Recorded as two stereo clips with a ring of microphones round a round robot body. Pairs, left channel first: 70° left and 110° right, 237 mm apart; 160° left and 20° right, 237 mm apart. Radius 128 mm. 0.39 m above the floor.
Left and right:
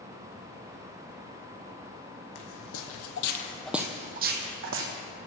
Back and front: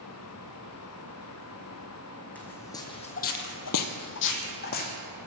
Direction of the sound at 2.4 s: 75° left.